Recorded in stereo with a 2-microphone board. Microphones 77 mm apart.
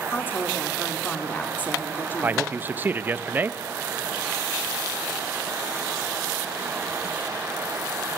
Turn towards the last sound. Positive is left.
turn(degrees=-25)  # may be behind; listen again after turning